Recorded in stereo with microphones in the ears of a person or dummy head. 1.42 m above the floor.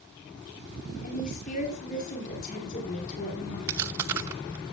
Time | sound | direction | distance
1.0 | a woman speaking | 40° left (ahead or behind) | 5 m
3.7 | chewing | 20° right (ahead or behind) | 0.8 m